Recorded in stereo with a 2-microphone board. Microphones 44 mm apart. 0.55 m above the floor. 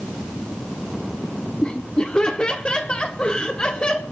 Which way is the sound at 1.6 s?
25° left (ahead or behind).